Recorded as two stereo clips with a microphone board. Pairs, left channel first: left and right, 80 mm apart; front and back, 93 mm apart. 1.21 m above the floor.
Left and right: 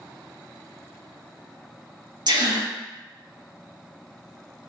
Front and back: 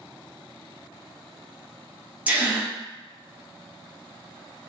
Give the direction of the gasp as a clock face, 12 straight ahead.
4 o'clock.